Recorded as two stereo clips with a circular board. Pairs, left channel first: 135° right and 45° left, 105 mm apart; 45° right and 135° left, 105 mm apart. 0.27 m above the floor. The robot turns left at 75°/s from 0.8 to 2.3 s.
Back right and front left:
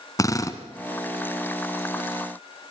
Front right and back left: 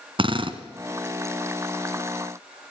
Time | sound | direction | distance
0.2 | a drill | 170° left | 1.4 m